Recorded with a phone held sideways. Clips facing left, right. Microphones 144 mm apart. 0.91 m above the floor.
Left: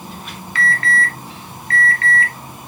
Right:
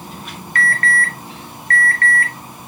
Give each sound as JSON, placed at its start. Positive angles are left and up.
{"t": 0.6, "sound": "an alarm", "side_deg": -50, "distance_m": 1.4}